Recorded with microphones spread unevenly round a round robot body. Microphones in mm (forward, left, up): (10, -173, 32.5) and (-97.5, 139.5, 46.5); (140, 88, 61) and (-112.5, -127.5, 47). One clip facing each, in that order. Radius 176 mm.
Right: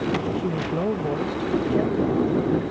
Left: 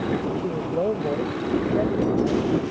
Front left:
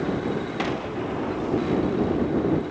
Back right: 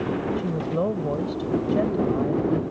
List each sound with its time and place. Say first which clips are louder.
0.4 s a woman speaking: left 1 dB, back right 2 dB; 140° right